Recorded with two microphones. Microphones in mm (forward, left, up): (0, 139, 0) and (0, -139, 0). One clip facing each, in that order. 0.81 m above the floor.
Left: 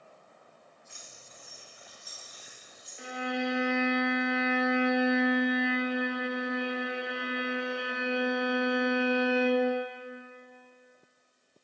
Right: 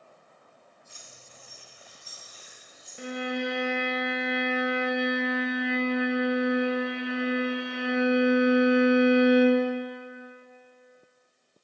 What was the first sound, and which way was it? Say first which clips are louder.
Keys jangling: right 1 dB; 45° right (ahead or behind).